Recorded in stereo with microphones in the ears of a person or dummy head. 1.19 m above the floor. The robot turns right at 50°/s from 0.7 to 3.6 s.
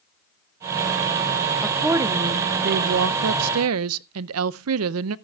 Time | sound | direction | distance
1.6 | a woman speaking | 175° left | 0.6 m